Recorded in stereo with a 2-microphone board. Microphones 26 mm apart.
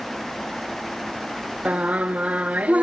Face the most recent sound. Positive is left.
turn(degrees=-60)  # may be behind; listen again after turning